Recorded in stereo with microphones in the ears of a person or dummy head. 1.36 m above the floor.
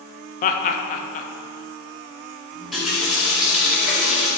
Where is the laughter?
35° left (ahead or behind), 0.6 m.